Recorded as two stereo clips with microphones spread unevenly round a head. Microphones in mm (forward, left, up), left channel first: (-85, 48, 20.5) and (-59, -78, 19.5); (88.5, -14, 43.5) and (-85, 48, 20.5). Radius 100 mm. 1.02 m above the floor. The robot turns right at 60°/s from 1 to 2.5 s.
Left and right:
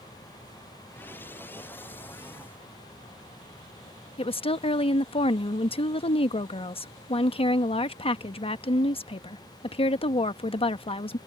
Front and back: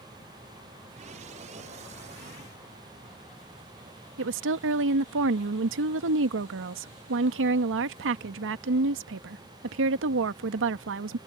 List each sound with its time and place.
4.2 s a woman speaking: 150° left